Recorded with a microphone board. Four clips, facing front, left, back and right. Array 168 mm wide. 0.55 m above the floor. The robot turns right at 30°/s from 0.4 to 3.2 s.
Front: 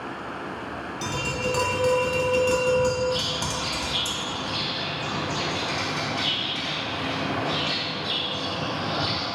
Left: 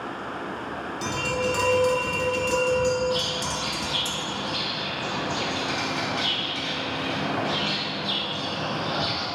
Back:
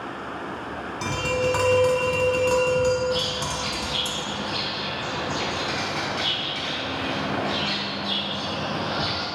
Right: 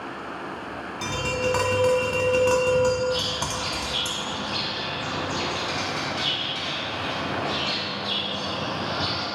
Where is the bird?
145° left, 0.9 m; by 9.2 s 150° left, 0.9 m.